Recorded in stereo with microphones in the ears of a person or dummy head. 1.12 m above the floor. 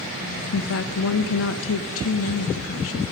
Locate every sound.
0.5 s a woman speaking: 70° left (ahead or behind), 1.0 m